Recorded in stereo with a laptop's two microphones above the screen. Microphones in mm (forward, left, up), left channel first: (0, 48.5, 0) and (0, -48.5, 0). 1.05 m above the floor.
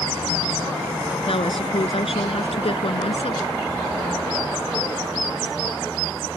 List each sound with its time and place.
1.3 s a woman speaking: 75° left (ahead or behind); by 3.5 s 70° left (ahead or behind)